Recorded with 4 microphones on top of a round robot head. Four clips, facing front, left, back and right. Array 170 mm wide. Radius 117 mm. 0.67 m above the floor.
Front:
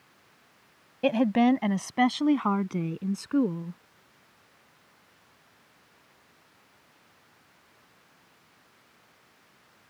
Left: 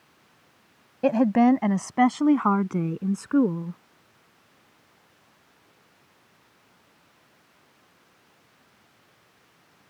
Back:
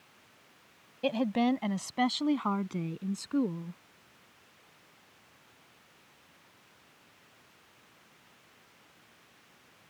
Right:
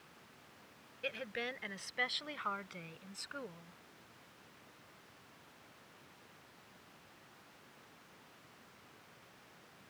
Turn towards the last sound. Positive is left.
turn(degrees=75)